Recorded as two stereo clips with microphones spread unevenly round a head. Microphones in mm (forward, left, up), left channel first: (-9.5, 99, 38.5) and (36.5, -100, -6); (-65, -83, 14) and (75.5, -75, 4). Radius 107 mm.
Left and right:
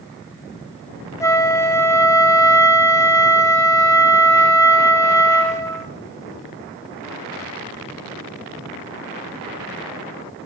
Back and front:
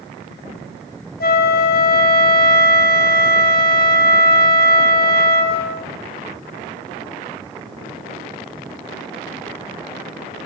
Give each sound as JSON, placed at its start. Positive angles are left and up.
{"t": 1.2, "sound": "a flute", "azimuth_deg": 180, "distance_m": 0.9}